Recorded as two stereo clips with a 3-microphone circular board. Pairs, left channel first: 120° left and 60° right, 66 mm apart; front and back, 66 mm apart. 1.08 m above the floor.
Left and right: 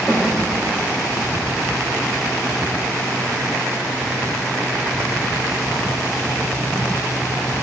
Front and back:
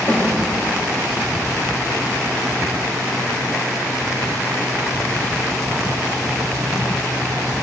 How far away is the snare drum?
About 2.5 m.